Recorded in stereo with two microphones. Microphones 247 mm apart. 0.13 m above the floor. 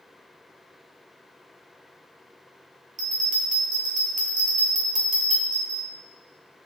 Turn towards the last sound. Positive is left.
turn(degrees=-30)  # may be behind; listen again after turning